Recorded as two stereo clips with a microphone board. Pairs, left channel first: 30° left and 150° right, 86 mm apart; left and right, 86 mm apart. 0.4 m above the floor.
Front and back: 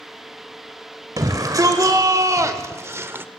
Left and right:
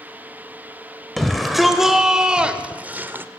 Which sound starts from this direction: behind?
A shout, at 1.2 s.